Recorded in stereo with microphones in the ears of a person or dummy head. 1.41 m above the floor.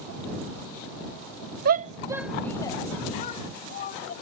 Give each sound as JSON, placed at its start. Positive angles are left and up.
{"t": 1.6, "sound": "a shout", "side_deg": -50}